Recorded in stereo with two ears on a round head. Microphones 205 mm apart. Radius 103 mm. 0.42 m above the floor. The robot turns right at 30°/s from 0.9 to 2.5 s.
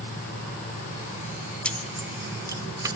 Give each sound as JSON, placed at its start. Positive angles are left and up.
{"t": 1.6, "sound": "keys jangling", "side_deg": 5, "distance_m": 0.9}